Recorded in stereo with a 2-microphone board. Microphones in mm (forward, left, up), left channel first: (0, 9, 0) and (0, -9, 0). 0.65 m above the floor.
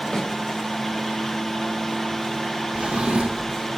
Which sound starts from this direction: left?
A snare drum, at 0.1 s.